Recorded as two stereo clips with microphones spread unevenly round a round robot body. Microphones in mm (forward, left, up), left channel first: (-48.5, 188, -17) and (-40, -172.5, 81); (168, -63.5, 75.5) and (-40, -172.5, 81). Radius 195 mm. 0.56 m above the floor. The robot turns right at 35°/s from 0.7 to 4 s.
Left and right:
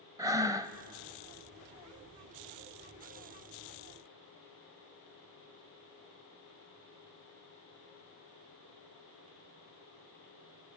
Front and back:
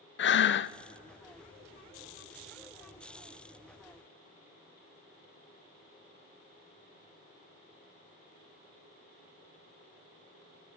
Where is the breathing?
15° right, 0.5 m; by 0.8 s 10° right, 0.5 m.